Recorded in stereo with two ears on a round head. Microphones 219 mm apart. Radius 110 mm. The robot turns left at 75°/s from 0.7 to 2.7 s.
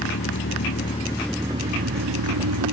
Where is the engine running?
45° left, 1.6 m; by 2.7 s 105° right, 1.6 m.